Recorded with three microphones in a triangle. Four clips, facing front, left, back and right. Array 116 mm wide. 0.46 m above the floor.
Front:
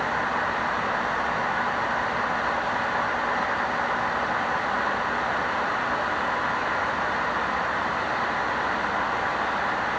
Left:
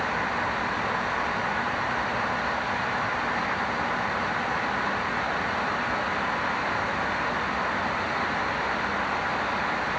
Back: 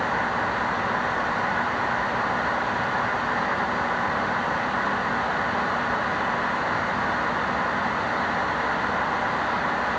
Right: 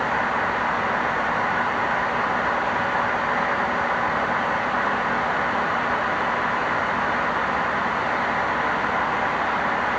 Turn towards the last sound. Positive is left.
No sound to turn to.